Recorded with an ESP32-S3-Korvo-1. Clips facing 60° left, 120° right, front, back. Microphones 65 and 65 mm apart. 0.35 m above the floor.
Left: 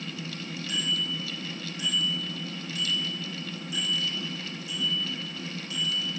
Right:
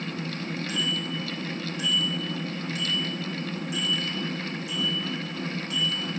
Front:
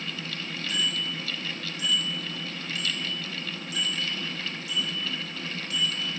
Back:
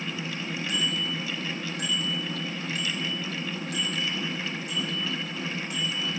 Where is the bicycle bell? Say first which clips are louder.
Even, even; 155° right, 10 m; by 6.1 s 145° right, 17 m.